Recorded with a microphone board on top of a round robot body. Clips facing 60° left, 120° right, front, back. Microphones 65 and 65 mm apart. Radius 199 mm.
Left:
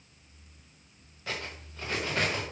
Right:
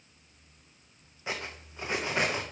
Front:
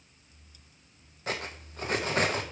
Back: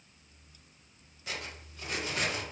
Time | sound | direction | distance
1.3 | cutlery clinking | 50° right | 0.9 m